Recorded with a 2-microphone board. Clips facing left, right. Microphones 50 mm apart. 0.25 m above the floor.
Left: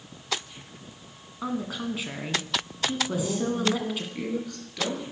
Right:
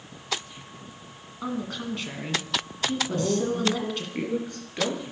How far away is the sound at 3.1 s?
About 4.5 m.